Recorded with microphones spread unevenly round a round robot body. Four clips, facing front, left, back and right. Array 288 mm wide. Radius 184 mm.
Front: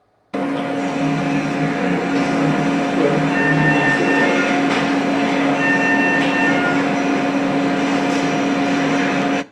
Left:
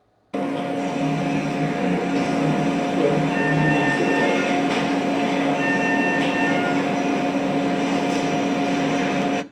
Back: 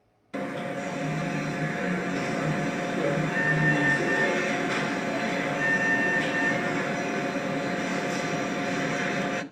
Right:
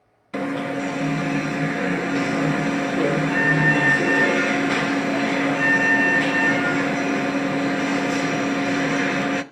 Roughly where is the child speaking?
I don't hear a child speaking.